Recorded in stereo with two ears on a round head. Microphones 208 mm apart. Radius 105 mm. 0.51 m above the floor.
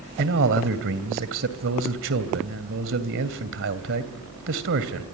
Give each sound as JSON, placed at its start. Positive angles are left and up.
{"t": 0.2, "sound": "a man speaking", "side_deg": -55, "distance_m": 2.5}